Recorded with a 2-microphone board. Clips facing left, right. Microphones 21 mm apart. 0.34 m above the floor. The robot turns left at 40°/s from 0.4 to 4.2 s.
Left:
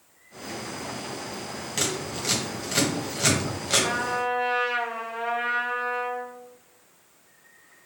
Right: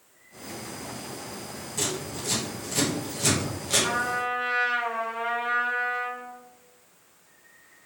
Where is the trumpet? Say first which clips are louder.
Left 1 dB; 5° right (ahead or behind), 1.6 m; by 6.4 s 10° left (ahead or behind), 1.6 m.